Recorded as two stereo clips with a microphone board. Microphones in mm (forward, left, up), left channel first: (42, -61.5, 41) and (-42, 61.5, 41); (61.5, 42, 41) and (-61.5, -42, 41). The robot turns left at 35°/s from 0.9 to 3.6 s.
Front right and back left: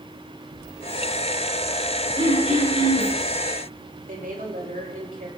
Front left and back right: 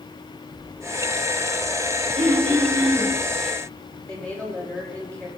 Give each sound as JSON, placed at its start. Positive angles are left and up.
{"t": 2.2, "sound": "throat clearing", "azimuth_deg": 170, "distance_m": 9.5}
{"t": 4.1, "sound": "a woman speaking", "azimuth_deg": 115, "distance_m": 5.0}